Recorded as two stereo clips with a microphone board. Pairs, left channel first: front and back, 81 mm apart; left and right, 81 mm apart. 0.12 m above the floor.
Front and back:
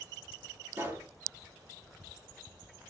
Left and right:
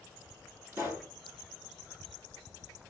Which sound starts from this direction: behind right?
A pop, at 0.7 s.